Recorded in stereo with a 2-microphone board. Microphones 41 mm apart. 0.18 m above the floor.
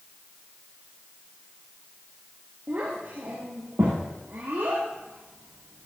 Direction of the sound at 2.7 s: 60° right (ahead or behind).